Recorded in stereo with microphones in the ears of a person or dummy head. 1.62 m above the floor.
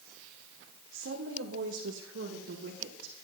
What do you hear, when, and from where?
0.9 s a woman speaking: 75° right (ahead or behind), 1.5 m; by 3.1 s 65° right (ahead or behind), 3 m